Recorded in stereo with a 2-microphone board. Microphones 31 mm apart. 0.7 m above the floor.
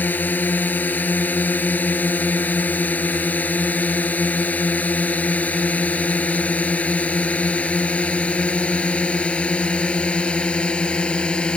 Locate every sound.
0.0 s a drone: 75° left (ahead or behind); by 11.6 s 35° left (ahead or behind)